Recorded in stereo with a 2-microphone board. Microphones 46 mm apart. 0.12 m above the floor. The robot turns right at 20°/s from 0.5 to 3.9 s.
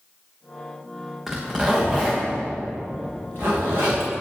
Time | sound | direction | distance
1.3 | a zipper | 10° right (ahead or behind) | 2.5 m